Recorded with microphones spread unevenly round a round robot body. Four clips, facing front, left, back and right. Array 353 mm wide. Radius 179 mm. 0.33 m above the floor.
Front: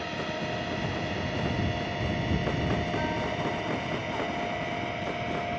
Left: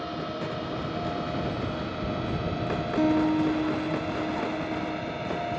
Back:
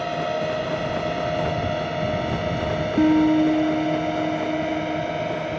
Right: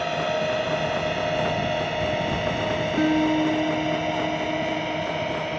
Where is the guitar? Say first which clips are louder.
Right 2 dB, back 14 dB; 175° right.